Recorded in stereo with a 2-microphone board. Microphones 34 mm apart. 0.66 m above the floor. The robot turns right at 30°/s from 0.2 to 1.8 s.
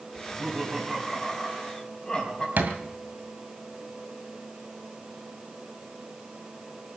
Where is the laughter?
30° right, 5.5 m; by 2.5 s 20° left, 5.5 m.